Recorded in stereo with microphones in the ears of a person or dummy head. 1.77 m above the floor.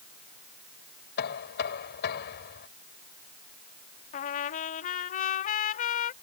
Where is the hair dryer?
No hair dryer in this recording.